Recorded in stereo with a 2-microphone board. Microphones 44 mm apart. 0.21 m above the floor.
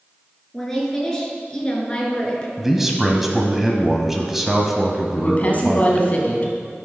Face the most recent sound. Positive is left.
turn(degrees=35)  # may be behind; listen again after turning